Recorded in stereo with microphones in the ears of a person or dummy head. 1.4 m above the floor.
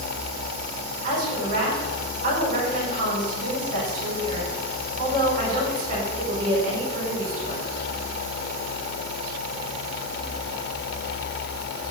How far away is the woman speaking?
About 5 m.